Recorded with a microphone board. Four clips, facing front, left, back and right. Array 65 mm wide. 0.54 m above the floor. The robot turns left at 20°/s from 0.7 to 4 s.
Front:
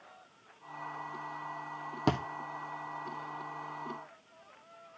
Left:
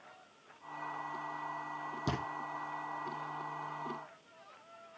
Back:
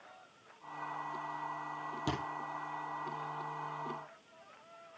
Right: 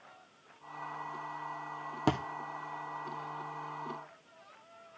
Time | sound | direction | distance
2.1 | a thud | 50° right | 2.0 m